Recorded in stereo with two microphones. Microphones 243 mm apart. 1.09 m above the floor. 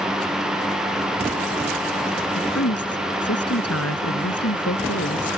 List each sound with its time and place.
2.4 s a woman speaking: 75° left (ahead or behind)